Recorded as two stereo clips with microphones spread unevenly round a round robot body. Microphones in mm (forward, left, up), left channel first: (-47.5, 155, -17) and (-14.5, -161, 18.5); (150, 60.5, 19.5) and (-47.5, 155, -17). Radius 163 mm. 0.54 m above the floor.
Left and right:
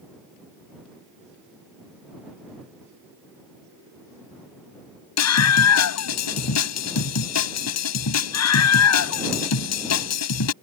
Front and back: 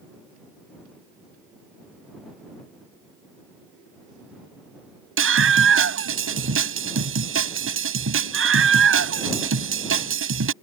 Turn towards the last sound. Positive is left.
turn(degrees=135)